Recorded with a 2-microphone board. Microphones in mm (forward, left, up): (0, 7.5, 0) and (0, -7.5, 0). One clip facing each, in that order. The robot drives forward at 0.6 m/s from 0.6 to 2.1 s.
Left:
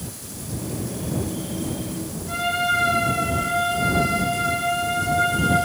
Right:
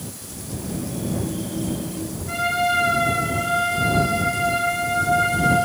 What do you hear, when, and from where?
2.3 s a trumpet: 30° right (ahead or behind), 3.5 m